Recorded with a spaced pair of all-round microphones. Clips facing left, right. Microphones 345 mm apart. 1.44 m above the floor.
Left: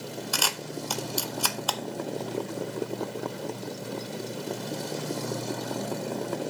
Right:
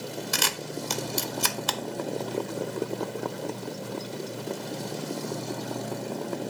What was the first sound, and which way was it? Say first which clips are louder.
A camera shutter: right 1 dB; 30° right (ahead or behind).